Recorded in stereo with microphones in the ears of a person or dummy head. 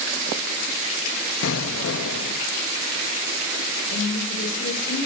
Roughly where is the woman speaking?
Left.